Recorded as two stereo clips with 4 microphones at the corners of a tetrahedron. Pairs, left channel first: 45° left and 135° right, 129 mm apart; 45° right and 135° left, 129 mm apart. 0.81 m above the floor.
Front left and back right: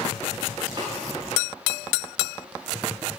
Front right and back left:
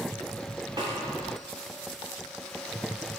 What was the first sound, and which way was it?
A snare drum, 175° right.